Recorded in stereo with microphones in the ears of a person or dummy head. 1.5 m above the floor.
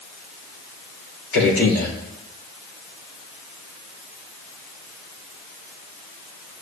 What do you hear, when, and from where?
1.3 s a man speaking: 70° left (ahead or behind), 4.5 m